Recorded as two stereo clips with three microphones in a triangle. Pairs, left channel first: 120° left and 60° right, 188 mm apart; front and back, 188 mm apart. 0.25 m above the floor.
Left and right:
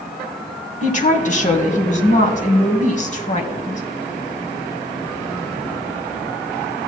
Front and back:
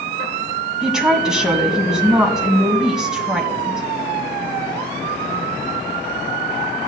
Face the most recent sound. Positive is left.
turn(degrees=95)